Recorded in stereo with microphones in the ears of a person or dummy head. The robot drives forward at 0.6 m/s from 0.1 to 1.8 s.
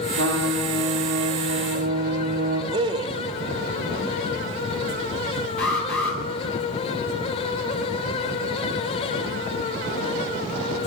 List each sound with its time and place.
0.1 s a trumpet: 80° right, 3 m; by 2.6 s 70° right (ahead or behind), 3.5 m
2.7 s a man speaking: 25° right (ahead or behind), 0.6 m
5.6 s an alarm: 10° left (ahead or behind), 4.5 m